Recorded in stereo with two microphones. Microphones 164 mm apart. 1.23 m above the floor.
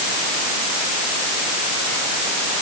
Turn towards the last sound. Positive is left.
No sound to turn to.